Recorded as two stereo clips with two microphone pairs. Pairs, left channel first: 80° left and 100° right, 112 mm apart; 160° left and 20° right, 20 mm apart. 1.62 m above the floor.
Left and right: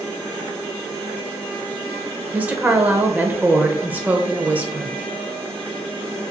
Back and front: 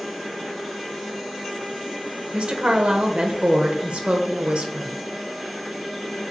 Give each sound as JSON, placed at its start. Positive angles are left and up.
{"t": 2.3, "sound": "a woman speaking", "azimuth_deg": -25, "distance_m": 0.7}